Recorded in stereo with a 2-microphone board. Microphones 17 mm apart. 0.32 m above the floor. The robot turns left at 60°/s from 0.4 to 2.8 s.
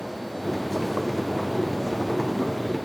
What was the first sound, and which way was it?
Only background noise.